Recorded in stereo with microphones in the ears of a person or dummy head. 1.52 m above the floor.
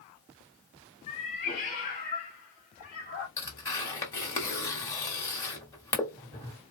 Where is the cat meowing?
30° left (ahead or behind), 1.2 m; by 3.3 s 50° left (ahead or behind), 3 m.